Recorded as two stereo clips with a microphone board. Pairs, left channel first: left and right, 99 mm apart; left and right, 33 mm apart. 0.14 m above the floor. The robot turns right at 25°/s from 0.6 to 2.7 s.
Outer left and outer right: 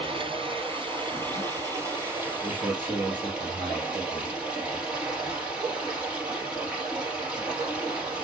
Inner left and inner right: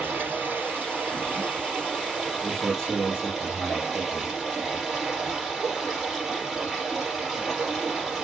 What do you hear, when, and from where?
0.0 s running water: 65° right, 3 m; by 8.2 s 10° right, 3 m
2.4 s a man speaking: 5° left (ahead or behind), 3 m; by 4.4 s 10° left (ahead or behind), 3 m